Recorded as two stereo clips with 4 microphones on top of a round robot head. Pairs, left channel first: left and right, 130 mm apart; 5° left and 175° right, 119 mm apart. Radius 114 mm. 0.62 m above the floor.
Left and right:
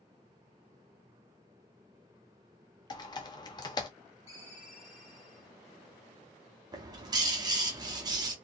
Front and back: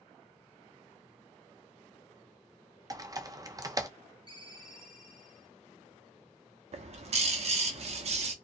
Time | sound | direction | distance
2.9 | typing on a keyboard | 135° left | 0.7 m
4.3 | a ringtone | 140° left | 2 m
6.7 | a bird | 150° right | 0.6 m